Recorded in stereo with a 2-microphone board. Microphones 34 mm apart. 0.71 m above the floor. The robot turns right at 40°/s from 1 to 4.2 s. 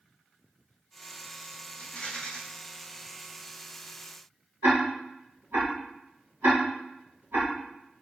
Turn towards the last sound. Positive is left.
turn(degrees=-70)  # may be behind; listen again after turning